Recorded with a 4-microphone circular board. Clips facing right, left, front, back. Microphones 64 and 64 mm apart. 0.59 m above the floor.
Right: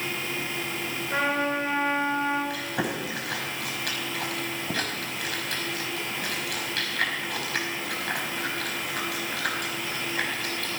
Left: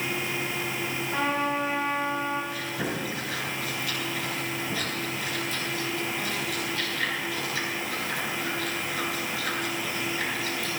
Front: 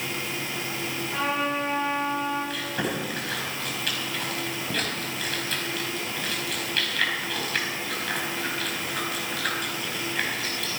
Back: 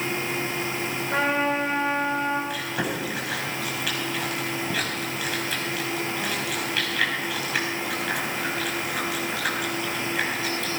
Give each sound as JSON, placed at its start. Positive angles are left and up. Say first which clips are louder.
{"t": 1.1, "sound": "a trumpet", "louder": "right 2 dB, back 4 dB", "azimuth_deg": -140, "distance_m": 6.0}
{"t": 2.5, "sound": "chewing", "louder": "right 1 dB, back 1 dB", "azimuth_deg": -95, "distance_m": 4.5}